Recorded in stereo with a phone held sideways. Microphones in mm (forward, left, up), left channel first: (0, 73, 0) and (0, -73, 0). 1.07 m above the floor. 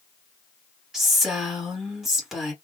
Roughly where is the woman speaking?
Centre.